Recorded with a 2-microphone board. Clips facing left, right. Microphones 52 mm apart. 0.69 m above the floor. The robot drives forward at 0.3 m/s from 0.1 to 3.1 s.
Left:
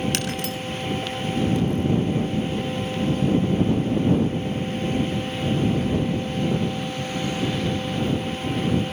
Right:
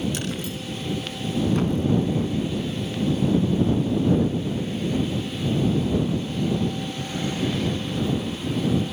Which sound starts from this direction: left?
Breaking glass, at 0.1 s.